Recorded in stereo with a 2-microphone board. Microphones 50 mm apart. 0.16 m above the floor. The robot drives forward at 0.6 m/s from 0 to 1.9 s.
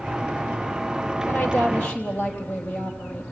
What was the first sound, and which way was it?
A woman speaking, 25° left (ahead or behind).